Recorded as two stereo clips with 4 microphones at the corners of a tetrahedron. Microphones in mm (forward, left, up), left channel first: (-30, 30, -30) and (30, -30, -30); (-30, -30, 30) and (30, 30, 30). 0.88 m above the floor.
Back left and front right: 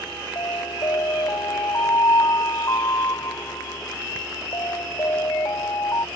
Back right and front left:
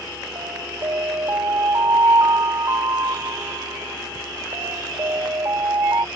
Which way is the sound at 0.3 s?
90° left.